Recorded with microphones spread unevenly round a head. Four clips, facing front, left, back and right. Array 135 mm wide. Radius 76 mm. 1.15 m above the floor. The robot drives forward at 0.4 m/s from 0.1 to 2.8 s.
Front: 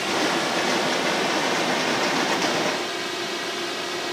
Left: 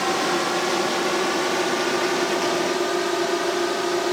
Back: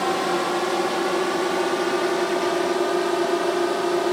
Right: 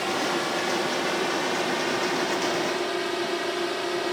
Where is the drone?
160° left; by 4.1 s 165° left.